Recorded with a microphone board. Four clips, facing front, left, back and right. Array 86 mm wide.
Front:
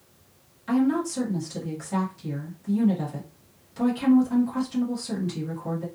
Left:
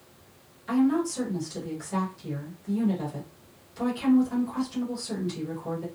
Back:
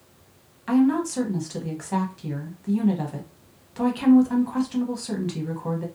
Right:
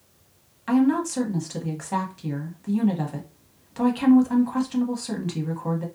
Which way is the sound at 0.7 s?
125° right.